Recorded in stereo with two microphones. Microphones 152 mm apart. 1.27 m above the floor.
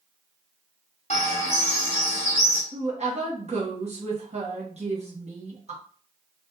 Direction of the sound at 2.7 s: 45° right (ahead or behind).